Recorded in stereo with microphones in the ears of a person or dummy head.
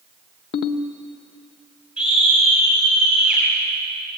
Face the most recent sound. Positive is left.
turn(degrees=-5)  # may be behind; listen again after turning